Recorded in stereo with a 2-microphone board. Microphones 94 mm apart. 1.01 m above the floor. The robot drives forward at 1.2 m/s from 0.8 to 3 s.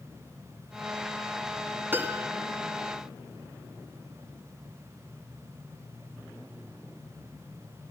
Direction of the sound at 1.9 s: 20° right (ahead or behind).